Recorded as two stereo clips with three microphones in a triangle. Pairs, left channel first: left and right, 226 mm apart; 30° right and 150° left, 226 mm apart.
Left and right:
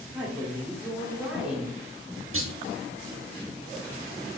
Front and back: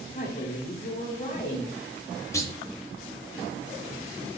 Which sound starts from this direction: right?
A clunk, at 2.3 s.